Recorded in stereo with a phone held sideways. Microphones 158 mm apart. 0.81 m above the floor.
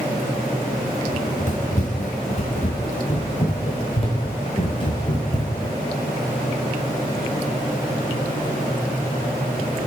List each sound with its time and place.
1.1 s running footsteps: 50° left (ahead or behind), 5.5 m; by 5.8 s 25° left (ahead or behind), 4 m